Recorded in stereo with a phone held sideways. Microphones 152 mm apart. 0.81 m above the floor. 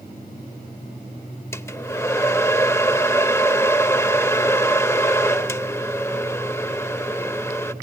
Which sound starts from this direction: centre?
A hair dryer, at 1.5 s.